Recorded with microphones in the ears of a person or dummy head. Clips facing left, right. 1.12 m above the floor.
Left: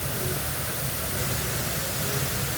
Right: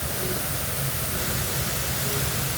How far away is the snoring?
No snoring in this recording.